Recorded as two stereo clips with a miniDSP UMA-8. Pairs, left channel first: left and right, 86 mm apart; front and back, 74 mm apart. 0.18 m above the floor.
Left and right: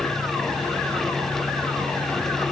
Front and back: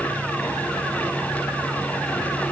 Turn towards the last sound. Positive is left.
No sound to turn to.